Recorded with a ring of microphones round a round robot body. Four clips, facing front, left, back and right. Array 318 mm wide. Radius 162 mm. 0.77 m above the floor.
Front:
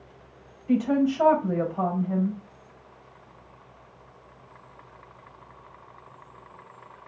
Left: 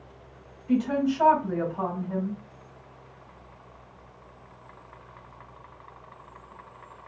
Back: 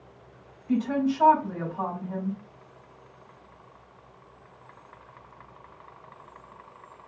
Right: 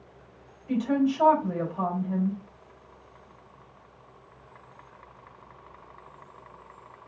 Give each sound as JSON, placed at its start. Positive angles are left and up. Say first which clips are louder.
{"t": 0.7, "sound": "a woman speaking", "louder": "even, front 3 dB", "azimuth_deg": -10, "distance_m": 3.5}